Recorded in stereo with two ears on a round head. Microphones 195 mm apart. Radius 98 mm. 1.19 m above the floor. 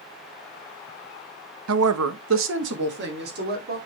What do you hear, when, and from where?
1.7 s a woman speaking: 75° right (ahead or behind), 0.8 m; by 3.8 s 45° right (ahead or behind), 3 m